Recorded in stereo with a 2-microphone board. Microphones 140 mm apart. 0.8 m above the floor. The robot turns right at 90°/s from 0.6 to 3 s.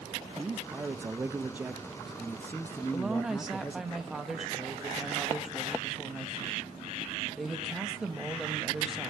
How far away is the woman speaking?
About 1.0 m.